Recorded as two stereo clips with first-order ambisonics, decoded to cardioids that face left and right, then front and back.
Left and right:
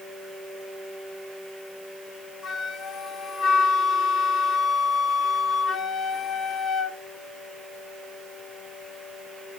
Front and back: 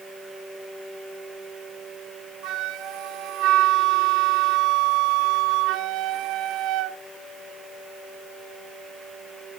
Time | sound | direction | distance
2.4 | a flute | 150° left | 0.8 m